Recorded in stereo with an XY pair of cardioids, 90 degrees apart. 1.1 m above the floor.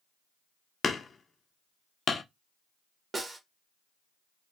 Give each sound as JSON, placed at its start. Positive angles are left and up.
{"t": 0.8, "sound": "hammering", "azimuth_deg": 50, "distance_m": 0.6}
{"t": 3.1, "sound": "a snare drum", "azimuth_deg": -35, "distance_m": 1.2}